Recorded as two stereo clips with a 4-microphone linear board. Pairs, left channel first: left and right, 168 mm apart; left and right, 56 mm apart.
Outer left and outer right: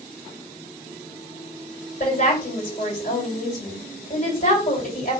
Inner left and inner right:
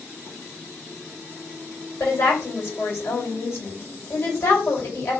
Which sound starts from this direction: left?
A woman speaking, at 2.0 s.